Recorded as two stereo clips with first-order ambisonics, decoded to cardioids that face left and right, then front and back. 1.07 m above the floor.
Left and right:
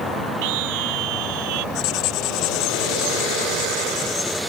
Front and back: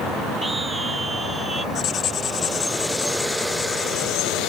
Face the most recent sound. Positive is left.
turn(degrees=60)